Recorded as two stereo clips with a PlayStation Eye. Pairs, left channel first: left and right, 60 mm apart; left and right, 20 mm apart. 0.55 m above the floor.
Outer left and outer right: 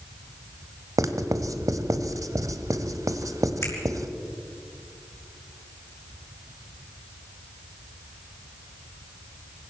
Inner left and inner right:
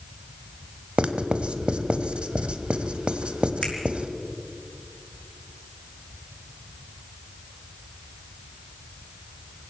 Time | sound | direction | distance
1.0 | writing | 75° right (ahead or behind) | 1.3 m
3.6 | a finger snap | 45° left (ahead or behind) | 5.5 m